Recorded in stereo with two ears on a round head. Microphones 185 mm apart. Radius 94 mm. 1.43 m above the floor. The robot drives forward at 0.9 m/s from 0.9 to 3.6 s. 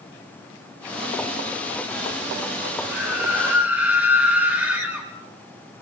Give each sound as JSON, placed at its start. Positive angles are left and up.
{"t": 2.9, "sound": "a scream", "side_deg": -10, "distance_m": 7.5}